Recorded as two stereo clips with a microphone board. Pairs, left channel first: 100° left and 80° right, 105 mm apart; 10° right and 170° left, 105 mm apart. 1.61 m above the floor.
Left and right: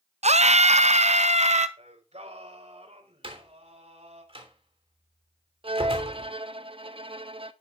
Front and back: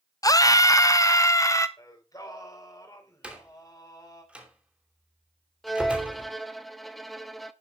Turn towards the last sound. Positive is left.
turn(degrees=-100)